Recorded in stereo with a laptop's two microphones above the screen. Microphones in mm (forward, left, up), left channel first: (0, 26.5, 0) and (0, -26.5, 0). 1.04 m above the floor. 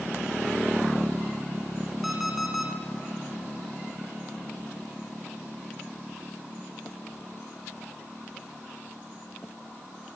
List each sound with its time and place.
2.0 s an alarm clock: centre (ahead or behind), 6 m